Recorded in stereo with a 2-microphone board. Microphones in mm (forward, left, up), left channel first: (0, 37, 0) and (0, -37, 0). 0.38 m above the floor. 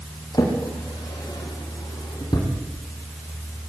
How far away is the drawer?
About 8 m.